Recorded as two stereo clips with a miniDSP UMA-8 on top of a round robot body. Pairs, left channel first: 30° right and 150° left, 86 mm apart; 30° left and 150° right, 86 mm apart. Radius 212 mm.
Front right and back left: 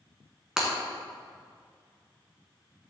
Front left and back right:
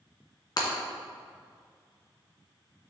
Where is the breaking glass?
70° left, 1.4 m.